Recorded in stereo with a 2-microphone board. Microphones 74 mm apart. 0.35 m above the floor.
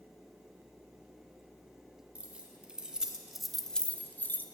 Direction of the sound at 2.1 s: 15° right (ahead or behind).